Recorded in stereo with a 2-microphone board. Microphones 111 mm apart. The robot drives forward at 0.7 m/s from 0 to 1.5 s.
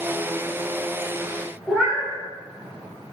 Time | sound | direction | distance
1.7 | a cat meowing | 5° right (ahead or behind) | 1.0 m